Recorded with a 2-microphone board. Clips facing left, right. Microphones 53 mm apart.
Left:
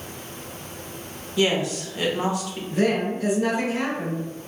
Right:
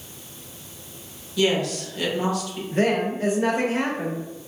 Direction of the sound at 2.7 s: 35° right (ahead or behind).